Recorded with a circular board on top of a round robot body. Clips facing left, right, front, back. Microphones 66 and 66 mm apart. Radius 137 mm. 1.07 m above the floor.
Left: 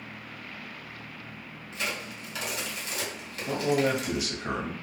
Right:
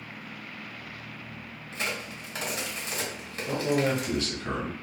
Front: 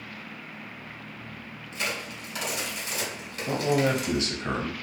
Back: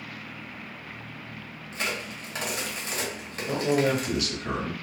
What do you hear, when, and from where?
1.7 s a crack: 140° right, 1.5 m
3.5 s a man speaking: 25° left, 0.8 m